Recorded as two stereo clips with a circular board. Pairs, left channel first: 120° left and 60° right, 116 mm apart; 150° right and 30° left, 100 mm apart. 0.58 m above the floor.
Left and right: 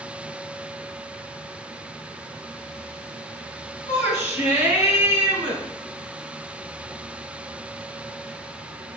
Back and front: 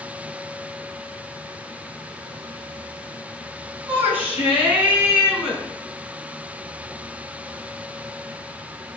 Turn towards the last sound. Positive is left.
turn(degrees=110)